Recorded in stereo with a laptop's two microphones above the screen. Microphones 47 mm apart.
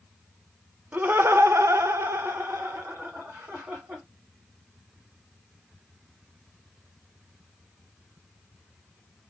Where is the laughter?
35° right (ahead or behind), 0.5 m; by 4.0 s 45° right (ahead or behind), 2 m.